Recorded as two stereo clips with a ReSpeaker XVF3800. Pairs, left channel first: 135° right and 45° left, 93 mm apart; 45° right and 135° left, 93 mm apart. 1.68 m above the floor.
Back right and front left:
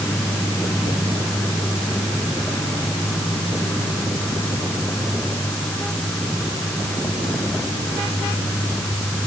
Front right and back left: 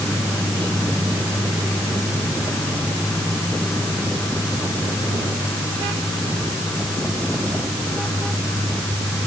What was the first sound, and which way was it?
Only background noise.